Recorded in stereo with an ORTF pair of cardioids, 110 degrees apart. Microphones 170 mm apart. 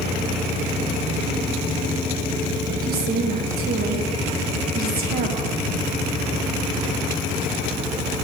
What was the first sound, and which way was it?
A woman speaking, 60° right.